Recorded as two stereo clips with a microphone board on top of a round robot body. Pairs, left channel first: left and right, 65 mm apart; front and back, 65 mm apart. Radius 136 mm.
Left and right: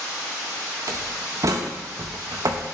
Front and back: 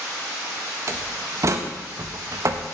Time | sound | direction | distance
0.9 | a door slam | 135° right | 0.6 m